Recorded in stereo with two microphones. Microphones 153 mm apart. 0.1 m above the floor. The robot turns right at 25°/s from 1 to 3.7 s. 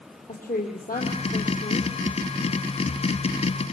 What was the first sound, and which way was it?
A woman speaking, 65° left (ahead or behind).